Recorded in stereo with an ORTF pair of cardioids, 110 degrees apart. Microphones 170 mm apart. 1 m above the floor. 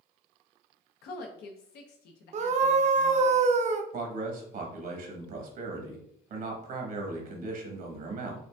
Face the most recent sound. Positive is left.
turn(degrees=-60)